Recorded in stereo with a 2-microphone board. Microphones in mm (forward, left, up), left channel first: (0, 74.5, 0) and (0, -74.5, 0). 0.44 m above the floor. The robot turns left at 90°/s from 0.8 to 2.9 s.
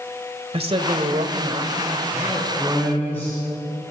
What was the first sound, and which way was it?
A woman speaking, 50° right.